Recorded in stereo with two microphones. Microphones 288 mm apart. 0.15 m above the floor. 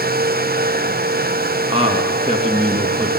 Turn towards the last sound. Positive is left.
turn(degrees=-20)  # may be behind; listen again after turning